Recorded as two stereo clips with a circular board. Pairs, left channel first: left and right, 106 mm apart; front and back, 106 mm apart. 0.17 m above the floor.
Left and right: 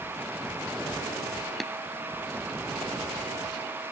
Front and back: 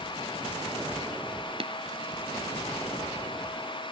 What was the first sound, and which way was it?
Tapping, straight behind.